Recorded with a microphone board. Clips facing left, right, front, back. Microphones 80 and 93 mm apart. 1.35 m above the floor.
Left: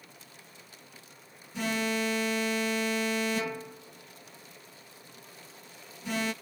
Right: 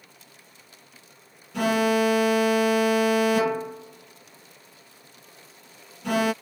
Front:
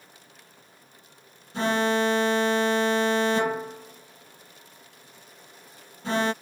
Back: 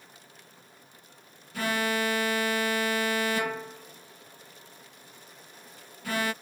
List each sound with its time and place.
1.5 s an alarm: 65° right